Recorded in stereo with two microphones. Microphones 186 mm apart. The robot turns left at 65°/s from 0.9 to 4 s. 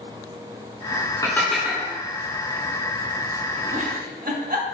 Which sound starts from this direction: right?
A giggle, at 3.7 s.